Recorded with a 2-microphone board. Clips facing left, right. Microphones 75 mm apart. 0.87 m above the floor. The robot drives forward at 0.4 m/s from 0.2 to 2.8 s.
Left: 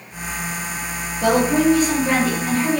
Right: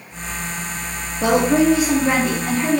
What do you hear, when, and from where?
1.2 s a woman speaking: 20° right (ahead or behind), 0.6 m; by 2.8 s 10° right (ahead or behind), 1.1 m